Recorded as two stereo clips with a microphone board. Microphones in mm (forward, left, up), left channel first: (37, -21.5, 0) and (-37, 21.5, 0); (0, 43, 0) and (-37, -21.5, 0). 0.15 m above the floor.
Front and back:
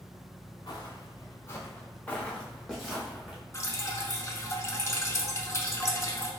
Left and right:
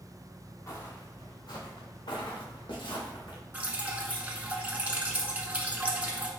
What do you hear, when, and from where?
0.7 s footsteps: 10° left, 1.2 m; by 3.4 s 70° left, 1.6 m
3.5 s dripping: 60° right, 0.7 m